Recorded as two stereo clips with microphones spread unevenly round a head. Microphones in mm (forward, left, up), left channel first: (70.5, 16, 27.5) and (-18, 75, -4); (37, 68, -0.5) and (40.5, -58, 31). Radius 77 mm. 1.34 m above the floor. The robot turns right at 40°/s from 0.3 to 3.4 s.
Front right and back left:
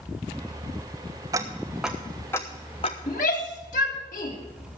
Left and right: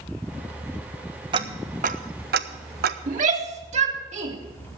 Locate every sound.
1.3 s ticking: 155° right, 0.7 m; by 3.0 s 90° right, 0.7 m
3.1 s a shout: 70° right, 3 m; by 4.3 s 55° right, 3 m